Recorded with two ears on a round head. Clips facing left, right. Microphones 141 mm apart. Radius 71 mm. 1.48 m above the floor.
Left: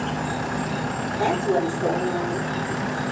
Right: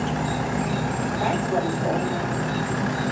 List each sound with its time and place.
0.0 s an insect: 10° right (ahead or behind), 1.1 m
1.2 s a woman speaking: 50° left (ahead or behind), 5.5 m